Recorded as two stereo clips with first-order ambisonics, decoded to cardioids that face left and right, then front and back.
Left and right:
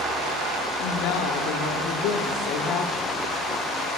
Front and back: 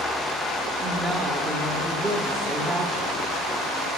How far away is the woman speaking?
About 1.4 m.